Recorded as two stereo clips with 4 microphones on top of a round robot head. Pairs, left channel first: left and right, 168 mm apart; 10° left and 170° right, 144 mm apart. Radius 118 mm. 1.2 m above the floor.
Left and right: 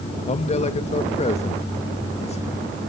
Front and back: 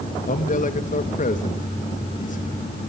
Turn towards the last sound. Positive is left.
turn(degrees=40)